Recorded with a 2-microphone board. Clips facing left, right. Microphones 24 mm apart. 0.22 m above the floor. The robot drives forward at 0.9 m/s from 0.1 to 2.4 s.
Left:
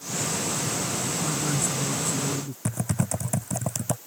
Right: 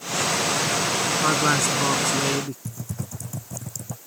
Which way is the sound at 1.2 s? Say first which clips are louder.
Right 9 dB; 55° right (ahead or behind).